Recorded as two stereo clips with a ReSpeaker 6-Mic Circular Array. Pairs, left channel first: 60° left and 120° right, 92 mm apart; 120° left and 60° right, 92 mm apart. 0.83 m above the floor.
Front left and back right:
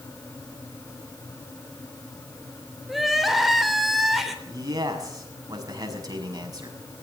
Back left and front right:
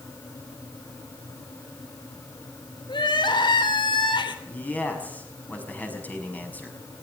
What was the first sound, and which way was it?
Crying, 150° left.